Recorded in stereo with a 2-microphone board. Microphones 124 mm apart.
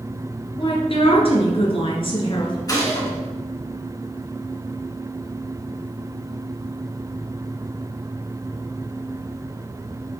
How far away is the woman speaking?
About 1.9 m.